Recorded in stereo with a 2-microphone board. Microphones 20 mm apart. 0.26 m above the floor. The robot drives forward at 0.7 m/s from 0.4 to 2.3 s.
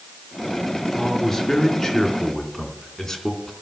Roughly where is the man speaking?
Left.